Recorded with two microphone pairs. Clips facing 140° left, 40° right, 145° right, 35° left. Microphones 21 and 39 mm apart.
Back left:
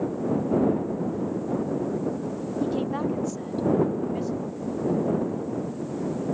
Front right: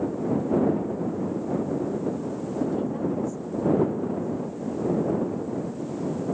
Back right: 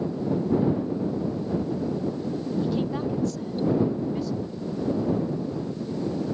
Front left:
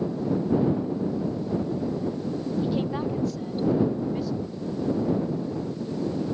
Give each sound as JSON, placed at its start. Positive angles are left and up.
{"t": 2.6, "sound": "a woman speaking", "azimuth_deg": 105}